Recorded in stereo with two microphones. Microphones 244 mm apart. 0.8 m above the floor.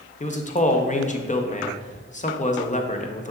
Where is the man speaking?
30° left (ahead or behind), 0.5 m.